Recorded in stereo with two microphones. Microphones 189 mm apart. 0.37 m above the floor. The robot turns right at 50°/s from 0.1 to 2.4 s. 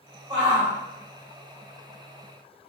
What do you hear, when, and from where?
0.3 s a shout: 25° right (ahead or behind), 1.5 m; by 0.7 s 35° right (ahead or behind), 1.5 m